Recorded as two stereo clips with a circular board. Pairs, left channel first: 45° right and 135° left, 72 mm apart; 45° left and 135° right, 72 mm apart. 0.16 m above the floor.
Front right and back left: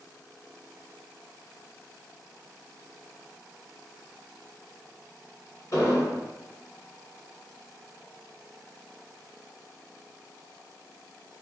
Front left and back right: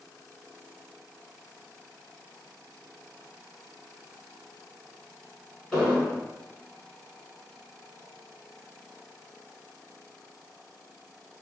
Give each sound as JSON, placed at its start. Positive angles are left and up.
{"t": 5.7, "sound": "an explosion", "azimuth_deg": -35, "distance_m": 2.0}